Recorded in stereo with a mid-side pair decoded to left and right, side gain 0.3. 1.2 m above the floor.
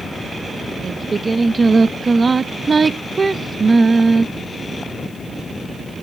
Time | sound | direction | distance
0.8 | singing | 40° right | 0.9 m